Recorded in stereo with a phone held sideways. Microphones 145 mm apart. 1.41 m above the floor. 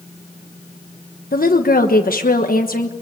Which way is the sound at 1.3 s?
85° left.